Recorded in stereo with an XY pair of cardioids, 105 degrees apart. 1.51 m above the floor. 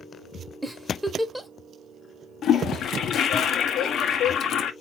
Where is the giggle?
Straight ahead, 1.0 m.